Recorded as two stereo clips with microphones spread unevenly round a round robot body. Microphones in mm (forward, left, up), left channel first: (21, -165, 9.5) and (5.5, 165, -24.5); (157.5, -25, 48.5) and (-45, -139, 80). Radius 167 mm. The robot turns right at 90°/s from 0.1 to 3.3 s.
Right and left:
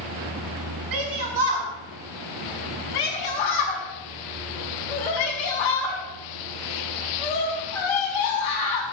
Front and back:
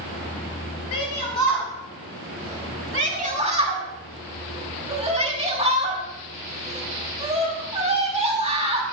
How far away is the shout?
About 5.5 m.